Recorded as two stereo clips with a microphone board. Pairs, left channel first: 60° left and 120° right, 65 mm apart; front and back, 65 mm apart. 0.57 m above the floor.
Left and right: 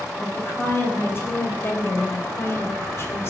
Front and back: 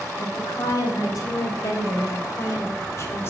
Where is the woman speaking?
10° left, 4 m; by 3.3 s 30° left, 1.8 m.